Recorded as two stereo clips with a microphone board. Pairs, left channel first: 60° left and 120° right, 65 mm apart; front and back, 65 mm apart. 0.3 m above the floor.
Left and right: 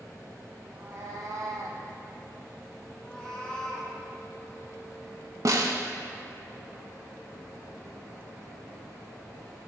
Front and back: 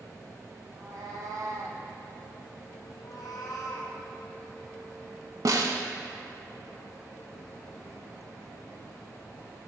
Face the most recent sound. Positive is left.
turn(degrees=-150)